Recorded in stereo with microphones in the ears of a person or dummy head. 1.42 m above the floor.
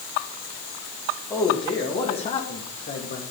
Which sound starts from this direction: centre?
A man speaking, at 1.3 s.